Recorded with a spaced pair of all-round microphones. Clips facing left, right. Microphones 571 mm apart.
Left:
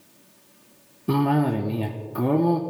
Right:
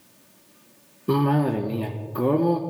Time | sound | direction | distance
1.1 | a cough | 10° left (ahead or behind) | 0.6 m